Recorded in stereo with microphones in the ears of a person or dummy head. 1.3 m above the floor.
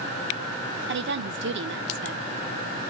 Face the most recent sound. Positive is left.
turn(degrees=-55)  # may be behind; listen again after turning